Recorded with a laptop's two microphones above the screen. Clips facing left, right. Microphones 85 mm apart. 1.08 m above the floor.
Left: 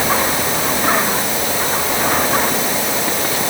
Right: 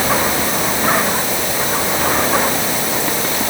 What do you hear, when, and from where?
Only background noise.